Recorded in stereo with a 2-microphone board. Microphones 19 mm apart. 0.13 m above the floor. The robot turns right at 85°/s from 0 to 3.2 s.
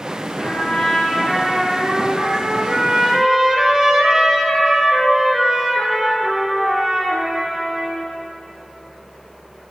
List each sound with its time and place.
0.4 s a trumpet: 95° left, 2.5 m; by 8.1 s 25° right, 2.5 m